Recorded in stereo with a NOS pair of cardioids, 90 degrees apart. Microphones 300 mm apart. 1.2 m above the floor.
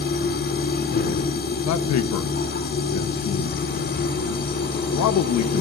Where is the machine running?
40° left, 5 m.